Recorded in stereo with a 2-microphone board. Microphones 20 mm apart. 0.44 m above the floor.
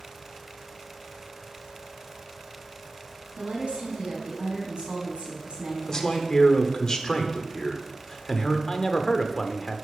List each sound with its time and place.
3.4 s a woman speaking: 60° right (ahead or behind), 4 m
5.8 s a man speaking: 30° left (ahead or behind), 1.0 m
8.7 s a man speaking: 25° left (ahead or behind), 0.8 m